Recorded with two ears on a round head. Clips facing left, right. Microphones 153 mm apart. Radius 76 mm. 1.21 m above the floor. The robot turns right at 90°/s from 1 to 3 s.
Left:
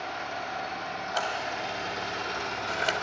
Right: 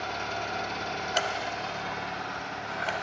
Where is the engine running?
45° right, 1.8 m; by 3.0 s 135° left, 1.8 m.